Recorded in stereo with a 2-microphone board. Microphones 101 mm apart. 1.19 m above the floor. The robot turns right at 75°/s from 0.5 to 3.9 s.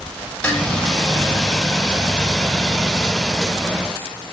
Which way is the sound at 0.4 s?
10° left (ahead or behind).